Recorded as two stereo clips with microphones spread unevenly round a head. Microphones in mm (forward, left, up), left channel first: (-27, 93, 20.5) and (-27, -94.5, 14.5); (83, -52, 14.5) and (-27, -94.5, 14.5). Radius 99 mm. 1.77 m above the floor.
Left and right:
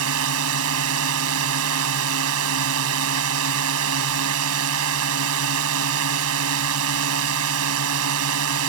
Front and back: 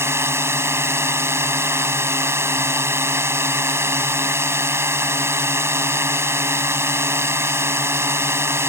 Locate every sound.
0.0 s a drone: 90° right